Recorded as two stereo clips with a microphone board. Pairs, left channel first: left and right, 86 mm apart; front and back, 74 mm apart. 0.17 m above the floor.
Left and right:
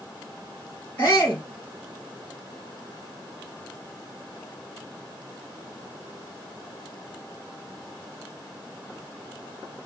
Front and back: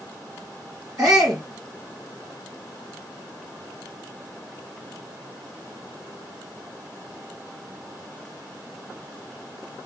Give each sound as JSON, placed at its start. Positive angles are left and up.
{"t": 1.0, "sound": "a shout", "azimuth_deg": 150, "distance_m": 2.5}